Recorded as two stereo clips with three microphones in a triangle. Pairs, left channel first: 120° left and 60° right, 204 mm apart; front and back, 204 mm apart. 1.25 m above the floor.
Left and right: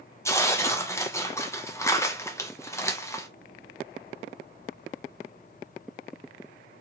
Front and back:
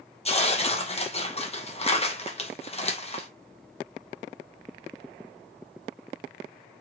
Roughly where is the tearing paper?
Ahead left.